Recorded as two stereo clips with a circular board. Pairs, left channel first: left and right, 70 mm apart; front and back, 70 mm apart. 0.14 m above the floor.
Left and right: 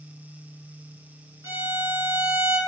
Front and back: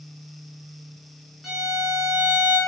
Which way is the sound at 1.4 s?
95° right.